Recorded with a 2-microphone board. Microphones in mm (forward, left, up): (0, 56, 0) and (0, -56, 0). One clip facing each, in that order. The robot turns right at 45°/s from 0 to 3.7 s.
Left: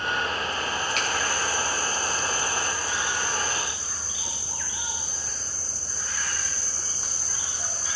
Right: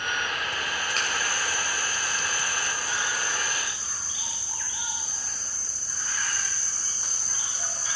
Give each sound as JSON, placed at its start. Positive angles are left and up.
{"t": 1.0, "sound": "a finger snap", "side_deg": -35, "distance_m": 3.5}